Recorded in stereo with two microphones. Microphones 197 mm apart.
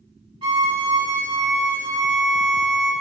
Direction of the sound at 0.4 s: 30° right (ahead or behind).